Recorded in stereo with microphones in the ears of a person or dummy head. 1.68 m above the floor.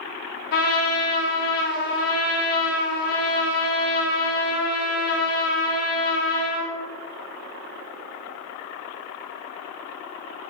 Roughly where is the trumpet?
Left.